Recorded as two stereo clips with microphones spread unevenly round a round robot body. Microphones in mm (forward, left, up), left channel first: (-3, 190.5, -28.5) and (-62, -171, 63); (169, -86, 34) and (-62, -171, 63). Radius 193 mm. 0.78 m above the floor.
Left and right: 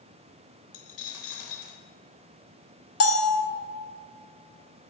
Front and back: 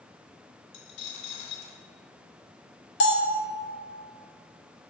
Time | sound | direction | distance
0.7 | a dropped coin | 30° left | 0.8 m
3.0 | a bell | 45° left | 1.0 m